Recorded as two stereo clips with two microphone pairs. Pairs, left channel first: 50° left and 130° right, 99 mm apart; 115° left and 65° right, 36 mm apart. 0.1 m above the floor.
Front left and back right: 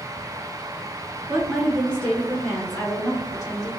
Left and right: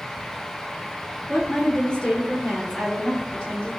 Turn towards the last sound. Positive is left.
turn(degrees=65)